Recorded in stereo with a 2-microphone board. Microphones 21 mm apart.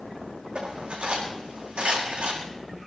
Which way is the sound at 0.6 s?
80° right.